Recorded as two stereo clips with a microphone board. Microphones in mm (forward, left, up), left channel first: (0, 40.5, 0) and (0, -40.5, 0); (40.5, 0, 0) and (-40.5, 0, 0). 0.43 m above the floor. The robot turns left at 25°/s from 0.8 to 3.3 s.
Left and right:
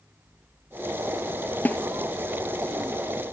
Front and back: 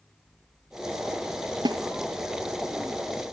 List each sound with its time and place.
1.6 s a snare drum: 160° left, 1.2 m; by 1.8 s 155° left, 1.2 m